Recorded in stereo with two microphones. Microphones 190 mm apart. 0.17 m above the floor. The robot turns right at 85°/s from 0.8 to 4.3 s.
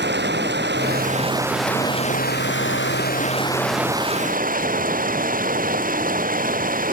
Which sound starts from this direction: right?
Running water, at 0.0 s.